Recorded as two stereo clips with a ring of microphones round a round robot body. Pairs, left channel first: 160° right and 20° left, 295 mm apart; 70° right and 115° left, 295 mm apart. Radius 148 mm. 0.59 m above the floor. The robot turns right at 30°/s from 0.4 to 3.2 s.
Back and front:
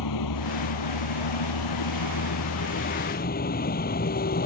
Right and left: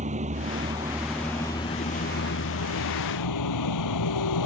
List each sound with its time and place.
0.0 s a vehicle: straight behind; by 4.5 s 95° right